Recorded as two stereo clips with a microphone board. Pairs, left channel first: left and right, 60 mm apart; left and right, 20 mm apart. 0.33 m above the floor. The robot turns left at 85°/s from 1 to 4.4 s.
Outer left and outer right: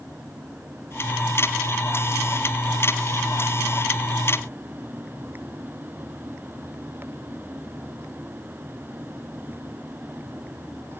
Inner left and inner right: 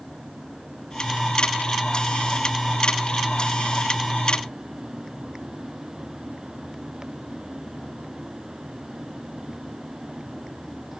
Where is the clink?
I don't hear a clink.